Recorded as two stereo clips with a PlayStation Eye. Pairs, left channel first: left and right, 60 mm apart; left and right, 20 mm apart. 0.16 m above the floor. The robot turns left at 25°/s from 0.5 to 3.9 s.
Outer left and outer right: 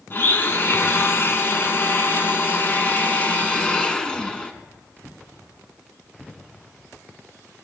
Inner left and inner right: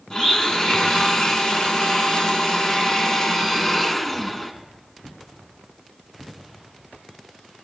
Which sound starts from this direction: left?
A blender, at 0.1 s.